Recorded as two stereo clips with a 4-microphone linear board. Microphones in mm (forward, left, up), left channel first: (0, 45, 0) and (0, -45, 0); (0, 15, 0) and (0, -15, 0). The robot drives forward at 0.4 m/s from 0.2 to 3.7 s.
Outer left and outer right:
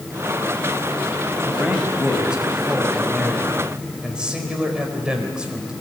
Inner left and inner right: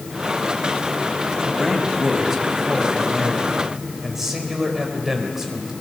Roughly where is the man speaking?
Centre.